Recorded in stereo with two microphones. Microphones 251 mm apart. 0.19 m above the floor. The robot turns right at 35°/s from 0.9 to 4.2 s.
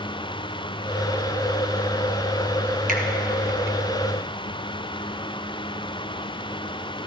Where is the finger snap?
35° right (ahead or behind), 2 m; by 3.0 s 30° right (ahead or behind), 2 m.